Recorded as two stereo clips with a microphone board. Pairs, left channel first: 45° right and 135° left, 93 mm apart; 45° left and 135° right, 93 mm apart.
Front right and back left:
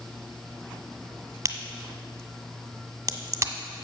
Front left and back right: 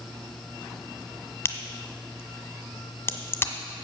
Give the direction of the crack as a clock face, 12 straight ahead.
9 o'clock.